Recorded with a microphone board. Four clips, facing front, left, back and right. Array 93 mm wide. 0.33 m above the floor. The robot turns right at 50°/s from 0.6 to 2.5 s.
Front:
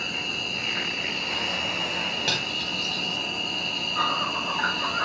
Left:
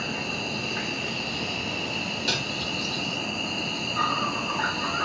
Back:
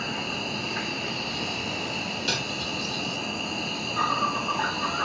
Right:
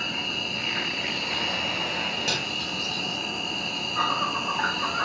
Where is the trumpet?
I don't hear a trumpet.